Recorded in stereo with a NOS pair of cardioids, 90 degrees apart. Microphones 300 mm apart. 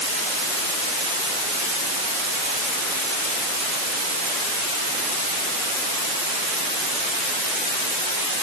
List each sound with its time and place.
Only background noise.